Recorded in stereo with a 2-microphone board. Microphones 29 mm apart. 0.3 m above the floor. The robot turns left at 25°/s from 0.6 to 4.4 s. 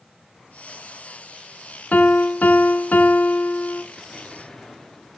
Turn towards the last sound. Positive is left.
turn(degrees=15)  # may be behind; listen again after turning